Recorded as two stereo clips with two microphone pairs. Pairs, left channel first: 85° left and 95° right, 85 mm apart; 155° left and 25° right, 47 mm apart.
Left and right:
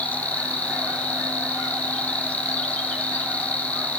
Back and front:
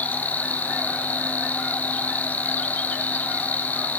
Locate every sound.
0.0 s an insect: 145° left, 2 m